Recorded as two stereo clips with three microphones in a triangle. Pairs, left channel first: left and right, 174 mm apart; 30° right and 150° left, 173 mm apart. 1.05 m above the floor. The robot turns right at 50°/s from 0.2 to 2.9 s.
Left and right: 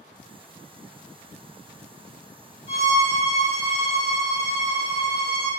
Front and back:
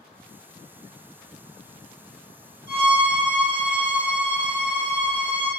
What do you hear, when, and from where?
2.7 s a violin: 60° left, 1.6 m; by 5.5 s 70° left, 1.6 m